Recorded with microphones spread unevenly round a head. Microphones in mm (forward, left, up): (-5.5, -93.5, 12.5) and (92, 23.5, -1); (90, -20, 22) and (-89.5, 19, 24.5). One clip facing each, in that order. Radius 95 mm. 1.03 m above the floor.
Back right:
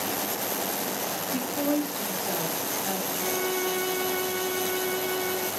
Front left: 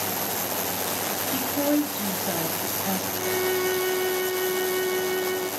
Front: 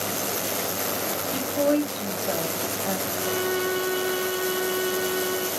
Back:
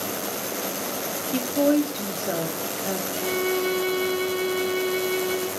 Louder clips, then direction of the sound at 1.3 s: Front left 3 dB, back 3 dB; 110° left.